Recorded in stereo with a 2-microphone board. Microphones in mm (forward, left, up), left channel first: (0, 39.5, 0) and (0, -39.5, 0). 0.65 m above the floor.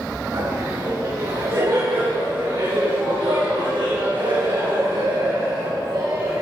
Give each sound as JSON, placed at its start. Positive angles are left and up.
{"t": 0.3, "sound": "laughter", "side_deg": -50, "distance_m": 5.0}